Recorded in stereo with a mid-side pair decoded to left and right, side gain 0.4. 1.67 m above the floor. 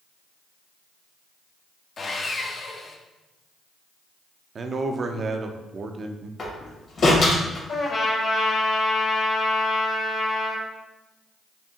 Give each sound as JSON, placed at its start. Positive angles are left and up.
{"t": 2.0, "sound": "sawing", "azimuth_deg": 45, "distance_m": 0.7}
{"t": 4.5, "sound": "a man speaking", "azimuth_deg": -45, "distance_m": 0.5}
{"t": 6.4, "sound": "a door slam", "azimuth_deg": 55, "distance_m": 1.6}
{"t": 7.7, "sound": "a trumpet", "azimuth_deg": 60, "distance_m": 1.7}